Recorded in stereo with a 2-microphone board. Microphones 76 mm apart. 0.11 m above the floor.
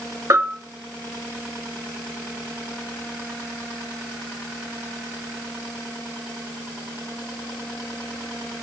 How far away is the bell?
About 2.5 m.